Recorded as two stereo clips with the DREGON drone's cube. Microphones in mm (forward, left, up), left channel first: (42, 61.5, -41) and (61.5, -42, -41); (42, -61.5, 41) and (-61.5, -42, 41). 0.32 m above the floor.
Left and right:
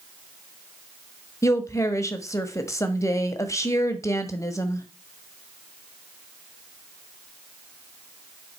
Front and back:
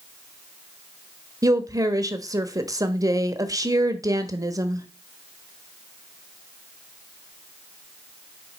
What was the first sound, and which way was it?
A woman speaking, 140° left.